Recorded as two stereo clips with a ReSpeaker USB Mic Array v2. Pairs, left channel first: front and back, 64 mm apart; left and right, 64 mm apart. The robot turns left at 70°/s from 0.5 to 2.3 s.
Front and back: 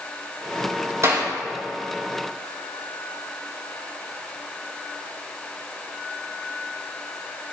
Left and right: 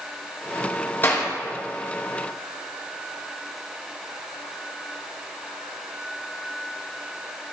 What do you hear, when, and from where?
1.0 s a clap: 145° left, 5 m; by 1.3 s 130° left, 5 m